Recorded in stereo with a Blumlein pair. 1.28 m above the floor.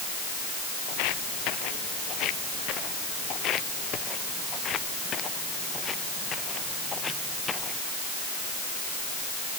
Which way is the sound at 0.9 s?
45° left.